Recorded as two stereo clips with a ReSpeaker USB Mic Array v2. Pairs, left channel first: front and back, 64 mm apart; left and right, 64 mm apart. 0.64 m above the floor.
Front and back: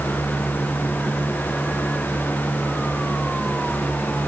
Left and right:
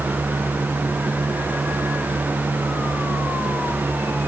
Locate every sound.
Only background noise.